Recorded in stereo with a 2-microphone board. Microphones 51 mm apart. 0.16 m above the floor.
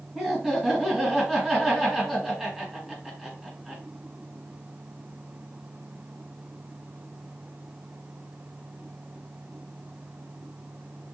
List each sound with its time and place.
0.1 s laughter: 5° right (ahead or behind), 1.6 m